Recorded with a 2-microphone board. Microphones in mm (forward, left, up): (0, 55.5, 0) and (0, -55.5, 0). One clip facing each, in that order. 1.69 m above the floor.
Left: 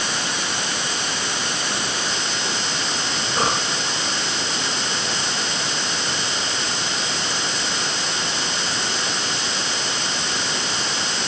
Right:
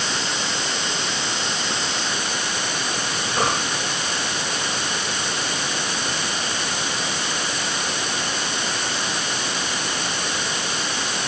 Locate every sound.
Only background noise.